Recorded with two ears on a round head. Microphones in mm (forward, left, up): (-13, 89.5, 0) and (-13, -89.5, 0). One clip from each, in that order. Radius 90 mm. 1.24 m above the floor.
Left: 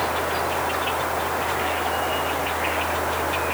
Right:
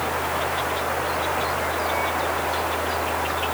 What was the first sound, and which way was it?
Only background noise.